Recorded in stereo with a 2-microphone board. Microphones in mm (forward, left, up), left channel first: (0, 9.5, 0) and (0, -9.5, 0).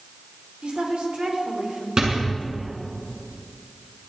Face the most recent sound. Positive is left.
turn(degrees=-50)  # may be behind; listen again after turning